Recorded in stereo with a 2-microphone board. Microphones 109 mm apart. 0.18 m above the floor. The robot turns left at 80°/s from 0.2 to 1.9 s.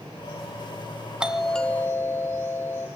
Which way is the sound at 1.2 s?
165° right.